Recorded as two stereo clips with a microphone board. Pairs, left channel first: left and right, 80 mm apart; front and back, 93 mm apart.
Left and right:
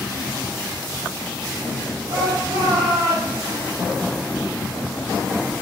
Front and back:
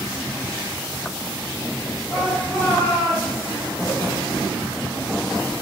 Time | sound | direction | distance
2.1 | a shout | 80° right | 4 m